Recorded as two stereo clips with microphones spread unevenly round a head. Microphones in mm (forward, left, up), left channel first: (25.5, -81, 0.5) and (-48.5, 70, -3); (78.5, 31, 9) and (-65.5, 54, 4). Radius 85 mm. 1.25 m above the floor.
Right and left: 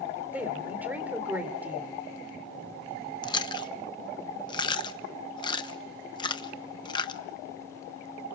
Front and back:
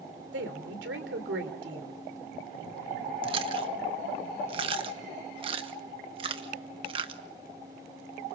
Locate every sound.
0.3 s a woman speaking: 165° right, 3.5 m
3.2 s chewing: 130° right, 1.1 m